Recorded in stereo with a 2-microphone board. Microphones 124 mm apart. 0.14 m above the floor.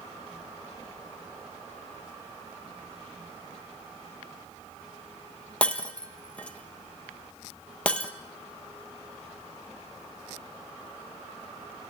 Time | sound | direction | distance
5.6 | breaking glass | 10° left (ahead or behind) | 1.3 m